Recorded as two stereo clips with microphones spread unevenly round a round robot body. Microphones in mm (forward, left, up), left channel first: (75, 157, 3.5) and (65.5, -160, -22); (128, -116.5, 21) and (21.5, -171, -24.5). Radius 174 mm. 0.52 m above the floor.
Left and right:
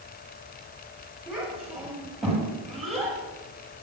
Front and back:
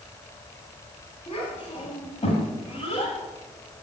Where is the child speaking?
5° right, 7 m; by 3.2 s straight ahead, 8 m.